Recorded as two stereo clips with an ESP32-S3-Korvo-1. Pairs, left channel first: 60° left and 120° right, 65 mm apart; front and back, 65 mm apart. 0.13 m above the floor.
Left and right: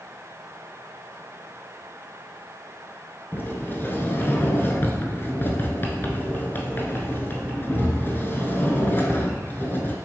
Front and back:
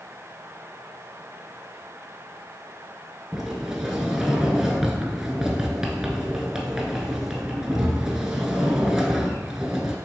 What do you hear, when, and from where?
3.3 s a sliding door: 100° left, 1.0 m